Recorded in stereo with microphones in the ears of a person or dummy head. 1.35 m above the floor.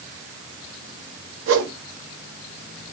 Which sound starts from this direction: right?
A whoosh, at 1.5 s.